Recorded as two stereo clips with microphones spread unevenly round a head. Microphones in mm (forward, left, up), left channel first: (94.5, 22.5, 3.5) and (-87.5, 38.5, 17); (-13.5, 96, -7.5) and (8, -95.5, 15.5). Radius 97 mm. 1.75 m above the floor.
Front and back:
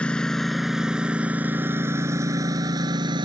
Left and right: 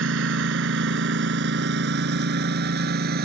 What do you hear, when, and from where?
0.0 s a lawn mower: 90° right; by 3.2 s 120° right